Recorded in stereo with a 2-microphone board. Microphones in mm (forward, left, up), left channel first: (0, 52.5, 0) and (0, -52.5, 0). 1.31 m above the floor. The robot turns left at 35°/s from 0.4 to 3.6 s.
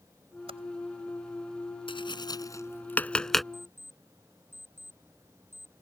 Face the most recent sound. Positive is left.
turn(degrees=-20)  # may be behind; listen again after turning